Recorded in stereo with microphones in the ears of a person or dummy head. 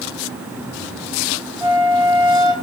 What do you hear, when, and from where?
1.6 s a flute: 30° left (ahead or behind), 1.8 m